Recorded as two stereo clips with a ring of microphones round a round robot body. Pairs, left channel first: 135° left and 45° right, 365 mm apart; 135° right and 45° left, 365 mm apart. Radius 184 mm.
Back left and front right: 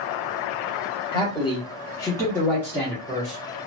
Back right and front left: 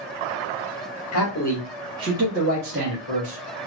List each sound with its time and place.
1.1 s a man speaking: 155° right, 0.9 m; by 3.4 s 45° left, 1.4 m